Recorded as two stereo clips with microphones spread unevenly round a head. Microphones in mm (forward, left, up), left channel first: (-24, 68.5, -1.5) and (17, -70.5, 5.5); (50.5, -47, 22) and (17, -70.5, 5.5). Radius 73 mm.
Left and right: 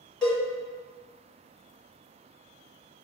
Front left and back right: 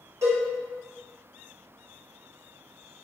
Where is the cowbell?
165° right, 1.1 m.